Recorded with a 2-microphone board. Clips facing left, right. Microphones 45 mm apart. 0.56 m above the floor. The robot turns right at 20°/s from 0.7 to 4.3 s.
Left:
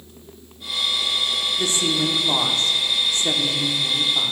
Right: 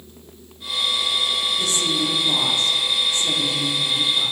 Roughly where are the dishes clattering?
I don't hear dishes clattering.